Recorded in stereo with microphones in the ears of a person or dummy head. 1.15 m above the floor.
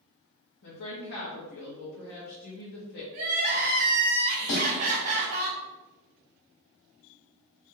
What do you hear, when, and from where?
0.6 s a woman speaking: 55° left (ahead or behind), 1.3 m
3.1 s crying: 45° right (ahead or behind), 1.5 m
4.5 s a snare drum: 65° left (ahead or behind), 1.8 m